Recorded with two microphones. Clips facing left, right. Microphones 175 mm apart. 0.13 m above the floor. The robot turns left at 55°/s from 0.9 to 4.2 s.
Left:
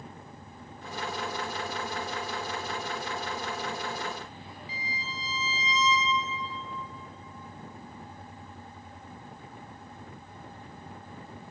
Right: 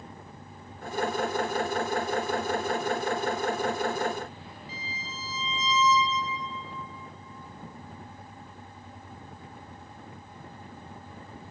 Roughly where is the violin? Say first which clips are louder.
Left 2 dB; right.